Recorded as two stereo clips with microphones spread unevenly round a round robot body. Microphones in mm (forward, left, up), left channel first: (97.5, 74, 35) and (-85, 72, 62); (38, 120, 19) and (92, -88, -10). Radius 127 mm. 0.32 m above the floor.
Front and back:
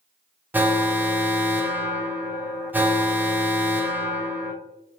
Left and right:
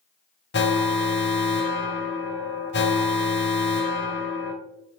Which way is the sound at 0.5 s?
95° left.